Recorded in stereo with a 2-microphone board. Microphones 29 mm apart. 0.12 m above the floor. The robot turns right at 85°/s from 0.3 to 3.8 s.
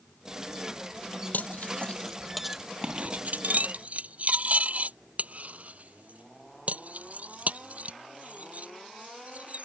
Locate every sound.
1.3 s cutlery clinking: 70° left (ahead or behind); by 9.6 s 55° right (ahead or behind)